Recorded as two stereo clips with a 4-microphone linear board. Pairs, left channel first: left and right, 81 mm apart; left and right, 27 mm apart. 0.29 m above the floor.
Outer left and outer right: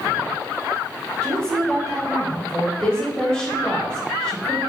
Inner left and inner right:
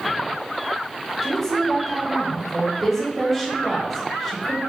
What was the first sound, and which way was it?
A woman speaking, 10° left (ahead or behind).